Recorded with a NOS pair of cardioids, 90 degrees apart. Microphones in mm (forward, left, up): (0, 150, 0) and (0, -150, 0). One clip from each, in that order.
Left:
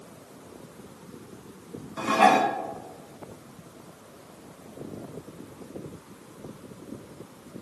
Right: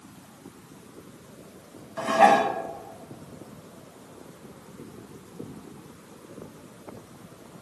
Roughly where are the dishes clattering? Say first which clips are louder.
Right 1 dB; ahead.